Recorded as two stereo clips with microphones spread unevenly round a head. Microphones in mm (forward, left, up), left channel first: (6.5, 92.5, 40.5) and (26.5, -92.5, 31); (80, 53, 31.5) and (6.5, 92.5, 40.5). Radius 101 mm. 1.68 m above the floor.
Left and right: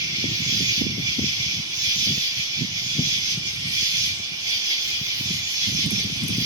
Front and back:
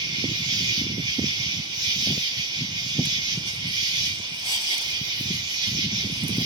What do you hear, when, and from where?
0.0 s an insect: 155° right, 1.8 m